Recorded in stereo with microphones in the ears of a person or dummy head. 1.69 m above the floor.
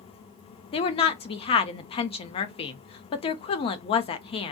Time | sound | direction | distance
0.7 | a woman speaking | 40° left (ahead or behind) | 0.6 m